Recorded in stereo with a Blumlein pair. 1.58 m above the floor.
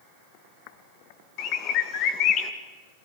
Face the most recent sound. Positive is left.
turn(degrees=35)